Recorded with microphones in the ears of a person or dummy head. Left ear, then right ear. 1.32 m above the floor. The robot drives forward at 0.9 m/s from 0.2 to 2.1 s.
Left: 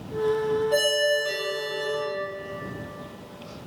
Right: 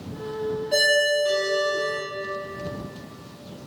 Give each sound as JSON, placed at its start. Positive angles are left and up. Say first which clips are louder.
{"t": 0.7, "sound": "a ringtone", "louder": "right 5 dB", "side_deg": -5, "distance_m": 0.6}